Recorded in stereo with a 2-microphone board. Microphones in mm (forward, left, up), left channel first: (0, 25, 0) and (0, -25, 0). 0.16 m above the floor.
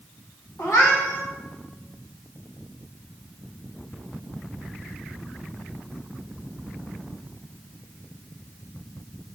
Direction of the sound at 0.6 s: 60° left (ahead or behind).